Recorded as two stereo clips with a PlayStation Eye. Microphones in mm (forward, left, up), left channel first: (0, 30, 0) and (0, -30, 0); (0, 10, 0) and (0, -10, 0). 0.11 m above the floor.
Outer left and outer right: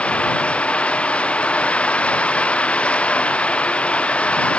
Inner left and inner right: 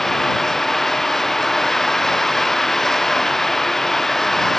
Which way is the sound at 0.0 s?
20° left (ahead or behind).